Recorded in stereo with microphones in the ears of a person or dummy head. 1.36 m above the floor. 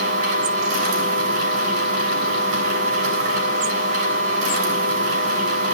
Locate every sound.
0.0 s a machine running: 50° right (ahead or behind), 6 m